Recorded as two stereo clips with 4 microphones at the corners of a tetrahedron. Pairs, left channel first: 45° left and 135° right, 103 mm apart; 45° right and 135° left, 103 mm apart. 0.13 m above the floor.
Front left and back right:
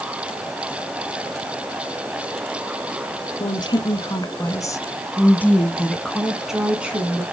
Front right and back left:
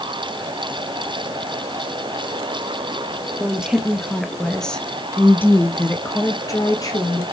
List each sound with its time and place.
3.4 s a woman speaking: 60° left, 1.6 m; by 7.2 s 70° right, 1.5 m